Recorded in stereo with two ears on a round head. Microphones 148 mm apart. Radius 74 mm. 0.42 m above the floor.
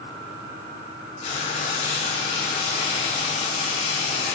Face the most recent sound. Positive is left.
turn(degrees=40)  # may be behind; listen again after turning